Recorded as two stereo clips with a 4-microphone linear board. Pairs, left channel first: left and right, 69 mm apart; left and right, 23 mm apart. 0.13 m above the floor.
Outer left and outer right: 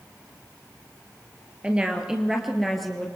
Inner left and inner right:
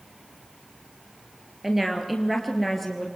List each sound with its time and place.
1.6 s a woman speaking: 15° right (ahead or behind), 2.5 m; by 3.1 s 5° left (ahead or behind), 2.5 m